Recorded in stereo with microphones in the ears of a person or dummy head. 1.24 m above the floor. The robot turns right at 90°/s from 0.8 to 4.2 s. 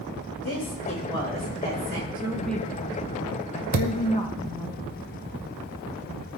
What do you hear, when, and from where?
0.4 s a woman speaking: 130° left, 6 m; by 2.0 s 120° right, 6 m
2.1 s a woman speaking: 25° right, 1.0 m; by 4.7 s 160° left, 1.0 m
3.7 s a thud: 45° right (ahead or behind), 0.8 m; by 4.1 s 55° right (ahead or behind), 0.8 m